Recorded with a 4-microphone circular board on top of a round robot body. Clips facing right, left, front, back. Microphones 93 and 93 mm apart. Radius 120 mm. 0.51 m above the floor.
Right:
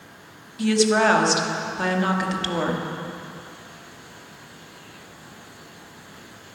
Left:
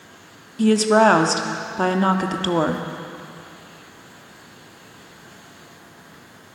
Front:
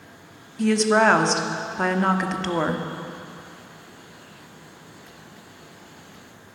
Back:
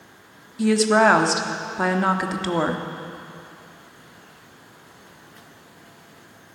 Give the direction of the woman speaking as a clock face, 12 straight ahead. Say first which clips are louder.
Left 4 dB, back 1 dB; 9 o'clock.